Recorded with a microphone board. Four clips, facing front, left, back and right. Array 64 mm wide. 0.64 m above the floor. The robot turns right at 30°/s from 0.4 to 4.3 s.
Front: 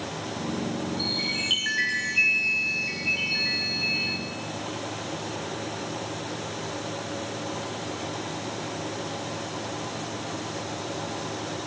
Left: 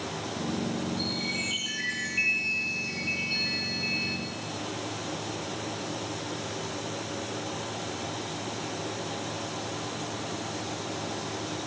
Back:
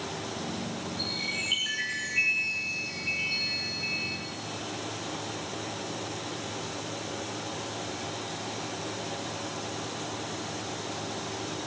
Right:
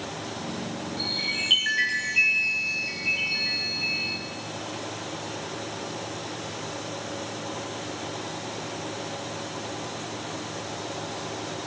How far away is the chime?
About 4 m.